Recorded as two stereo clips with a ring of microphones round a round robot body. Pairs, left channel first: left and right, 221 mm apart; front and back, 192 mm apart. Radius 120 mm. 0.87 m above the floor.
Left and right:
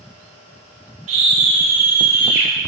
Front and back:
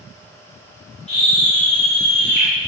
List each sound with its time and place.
1.1 s a scream: 60° right, 5 m; by 2.5 s 45° right, 5.5 m